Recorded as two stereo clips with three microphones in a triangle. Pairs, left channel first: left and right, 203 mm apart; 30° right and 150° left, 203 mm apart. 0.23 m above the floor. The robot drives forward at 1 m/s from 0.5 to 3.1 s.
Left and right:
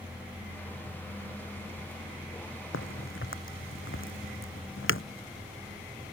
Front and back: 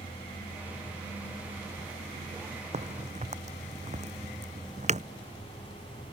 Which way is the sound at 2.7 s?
95° left.